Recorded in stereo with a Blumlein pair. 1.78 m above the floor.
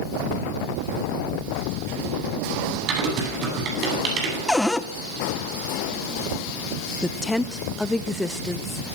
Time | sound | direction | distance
2.9 | typing on a keyboard | 35° right | 9 m
4.5 | a cupboard door | 5° left | 1.5 m
7.0 | a woman speaking | 5° left | 1.4 m